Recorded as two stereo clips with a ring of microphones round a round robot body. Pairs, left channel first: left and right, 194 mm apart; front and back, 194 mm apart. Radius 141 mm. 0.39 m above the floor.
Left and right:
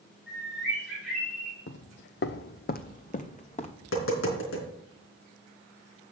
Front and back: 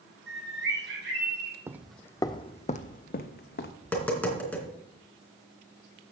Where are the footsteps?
105° left, 0.7 m; by 3.7 s 35° left, 1.4 m.